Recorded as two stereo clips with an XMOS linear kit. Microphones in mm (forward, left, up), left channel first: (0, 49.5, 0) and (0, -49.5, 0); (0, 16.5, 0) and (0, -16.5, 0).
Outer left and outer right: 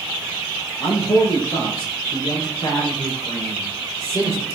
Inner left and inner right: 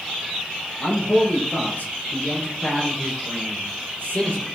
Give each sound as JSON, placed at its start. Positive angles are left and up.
{"t": 0.8, "sound": "a man speaking", "side_deg": 50, "distance_m": 6.5}